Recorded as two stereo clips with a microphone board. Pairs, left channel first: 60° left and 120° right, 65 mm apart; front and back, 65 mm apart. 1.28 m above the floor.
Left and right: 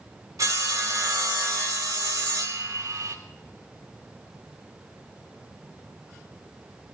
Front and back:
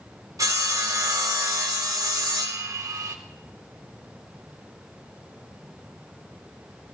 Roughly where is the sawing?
Behind right.